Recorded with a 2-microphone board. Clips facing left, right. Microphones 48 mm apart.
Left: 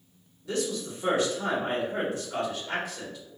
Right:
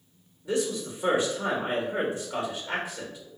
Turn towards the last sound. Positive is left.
turn(degrees=-20)  # may be behind; listen again after turning